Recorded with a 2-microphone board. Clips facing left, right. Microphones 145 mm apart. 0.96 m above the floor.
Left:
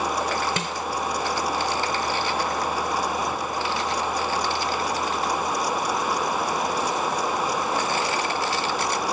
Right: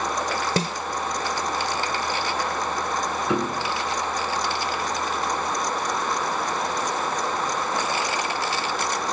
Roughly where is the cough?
No cough in this recording.